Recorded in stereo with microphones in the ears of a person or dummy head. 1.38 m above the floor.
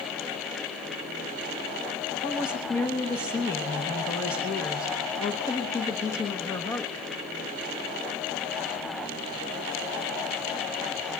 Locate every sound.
2.2 s a woman speaking: 20° left (ahead or behind), 1.1 m